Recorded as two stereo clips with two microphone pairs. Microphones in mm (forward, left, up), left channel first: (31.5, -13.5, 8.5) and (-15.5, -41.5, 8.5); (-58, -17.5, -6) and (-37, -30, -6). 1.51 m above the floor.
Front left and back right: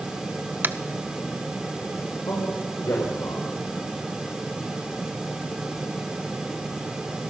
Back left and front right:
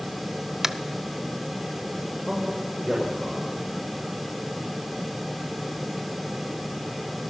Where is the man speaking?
40° left, 5.5 m.